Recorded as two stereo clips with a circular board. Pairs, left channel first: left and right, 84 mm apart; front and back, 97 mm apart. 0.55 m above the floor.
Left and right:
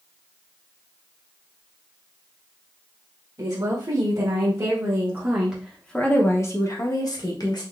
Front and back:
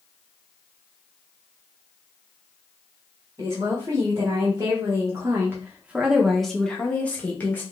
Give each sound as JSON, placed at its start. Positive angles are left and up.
{"t": 3.4, "sound": "a woman speaking", "azimuth_deg": -125, "distance_m": 1.8}